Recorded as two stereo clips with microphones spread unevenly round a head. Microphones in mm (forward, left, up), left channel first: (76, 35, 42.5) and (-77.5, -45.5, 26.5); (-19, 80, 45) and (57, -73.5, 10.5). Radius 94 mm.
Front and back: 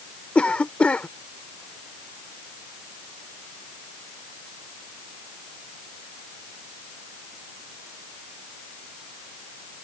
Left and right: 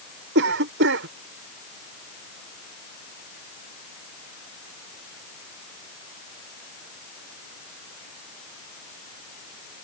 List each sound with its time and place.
0.3 s a cough: 55° right